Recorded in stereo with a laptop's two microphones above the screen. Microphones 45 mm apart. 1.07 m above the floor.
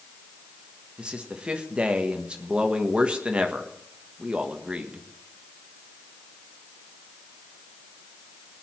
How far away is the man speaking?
About 1.3 m.